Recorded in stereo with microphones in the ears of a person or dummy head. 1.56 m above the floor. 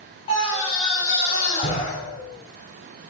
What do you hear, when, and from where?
0.3 s a scream: 30° left (ahead or behind), 5 m; by 1.9 s 40° left (ahead or behind), 4 m